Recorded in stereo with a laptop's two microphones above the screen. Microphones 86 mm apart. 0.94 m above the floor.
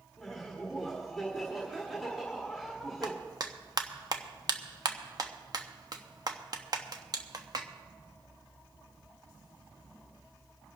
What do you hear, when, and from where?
0.2 s laughter: centre (ahead or behind), 1.6 m
3.0 s a clap: 50° right (ahead or behind), 1.0 m